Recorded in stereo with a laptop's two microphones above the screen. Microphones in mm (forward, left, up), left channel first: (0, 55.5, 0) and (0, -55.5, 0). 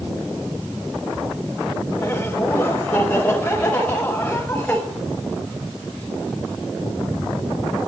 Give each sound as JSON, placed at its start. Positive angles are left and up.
{"t": 2.0, "sound": "laughter", "side_deg": 15, "distance_m": 3.5}